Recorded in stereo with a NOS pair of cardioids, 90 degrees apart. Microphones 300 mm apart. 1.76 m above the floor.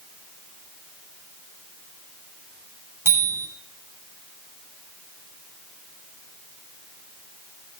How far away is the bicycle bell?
About 7 m.